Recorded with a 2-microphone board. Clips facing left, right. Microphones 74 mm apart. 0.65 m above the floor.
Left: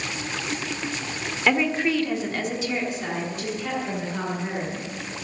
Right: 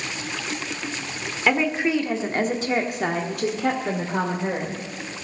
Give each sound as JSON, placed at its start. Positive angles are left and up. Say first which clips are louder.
{"t": 1.5, "sound": "a woman speaking", "louder": "right 1 dB", "side_deg": -5, "distance_m": 1.4}